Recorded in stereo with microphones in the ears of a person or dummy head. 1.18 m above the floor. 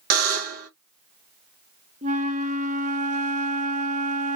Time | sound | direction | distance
0.1 | a buzzer | 45° right (ahead or behind) | 0.9 m
2.0 | a flute | 40° right (ahead or behind) | 0.7 m